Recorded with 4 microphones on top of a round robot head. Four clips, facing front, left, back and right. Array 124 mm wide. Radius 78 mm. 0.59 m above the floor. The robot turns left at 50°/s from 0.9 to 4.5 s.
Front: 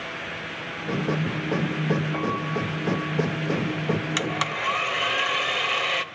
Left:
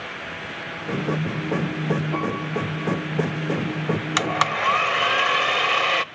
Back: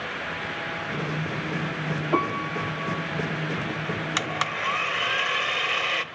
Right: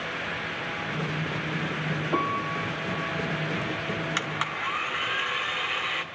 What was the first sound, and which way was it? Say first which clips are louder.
A piano: left 2 dB, back 1 dB; 150° right.